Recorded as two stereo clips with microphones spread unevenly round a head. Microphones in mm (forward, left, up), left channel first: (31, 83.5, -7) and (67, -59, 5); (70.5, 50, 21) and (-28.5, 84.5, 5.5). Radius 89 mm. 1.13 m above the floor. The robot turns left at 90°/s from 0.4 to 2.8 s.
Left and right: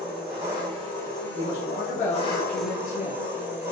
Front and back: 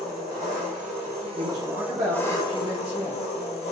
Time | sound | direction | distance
0.0 | an engine running | 145° right | 1.3 m
1.3 | a man speaking | 140° right | 1.1 m